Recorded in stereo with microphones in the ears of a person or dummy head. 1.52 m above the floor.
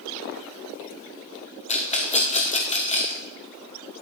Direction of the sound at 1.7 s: 35° left (ahead or behind).